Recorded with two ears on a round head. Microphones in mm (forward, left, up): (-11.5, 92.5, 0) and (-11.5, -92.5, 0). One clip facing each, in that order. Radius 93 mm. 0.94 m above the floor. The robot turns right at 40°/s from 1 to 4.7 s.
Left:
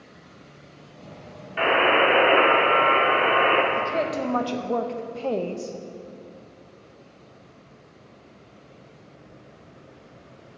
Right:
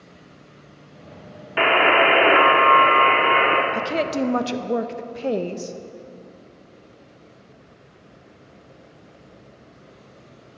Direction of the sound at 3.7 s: 60° right.